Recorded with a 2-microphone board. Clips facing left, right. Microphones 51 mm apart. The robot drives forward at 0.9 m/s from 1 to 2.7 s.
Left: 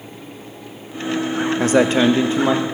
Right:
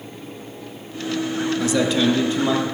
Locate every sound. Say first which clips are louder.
1.6 s a man speaking: left 5 dB; 45° left (ahead or behind), 0.6 m; by 2.6 s 25° left (ahead or behind), 1.1 m